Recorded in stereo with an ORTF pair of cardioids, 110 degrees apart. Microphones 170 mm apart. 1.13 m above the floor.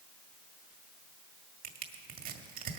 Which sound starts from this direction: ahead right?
Crushing, at 1.6 s.